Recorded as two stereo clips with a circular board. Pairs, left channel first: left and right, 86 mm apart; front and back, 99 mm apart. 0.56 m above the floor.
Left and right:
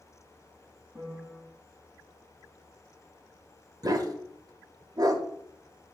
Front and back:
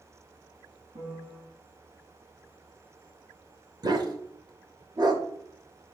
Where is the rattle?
I don't hear a rattle.